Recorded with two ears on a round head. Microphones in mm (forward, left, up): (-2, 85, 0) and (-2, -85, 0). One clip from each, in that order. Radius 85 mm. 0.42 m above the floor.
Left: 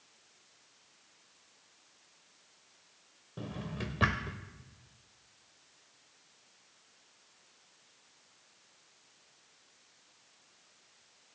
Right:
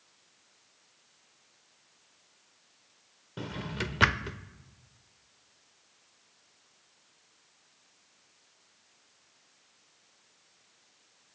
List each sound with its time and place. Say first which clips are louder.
3.4 s a drawer: right 6 dB; 60° right (ahead or behind), 0.5 m